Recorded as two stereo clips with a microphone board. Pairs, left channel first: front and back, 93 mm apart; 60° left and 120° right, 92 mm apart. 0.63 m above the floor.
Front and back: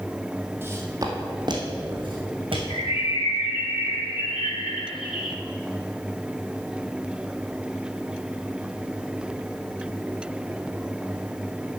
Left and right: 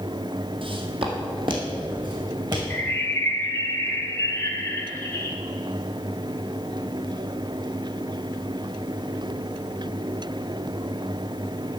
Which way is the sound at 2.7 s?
5° right.